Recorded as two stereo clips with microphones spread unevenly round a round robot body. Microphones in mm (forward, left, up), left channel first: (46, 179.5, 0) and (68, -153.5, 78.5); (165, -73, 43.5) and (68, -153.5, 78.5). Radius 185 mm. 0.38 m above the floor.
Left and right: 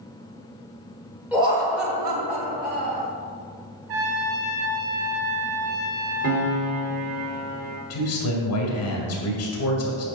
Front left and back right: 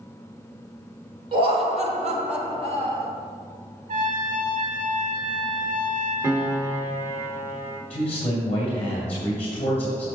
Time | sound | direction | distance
1.3 | laughter | 170° left | 1.2 m
3.9 | a trumpet | 125° right | 1.8 m
6.2 | a piano | 55° right | 1.5 m
7.9 | a man speaking | 110° left | 2.5 m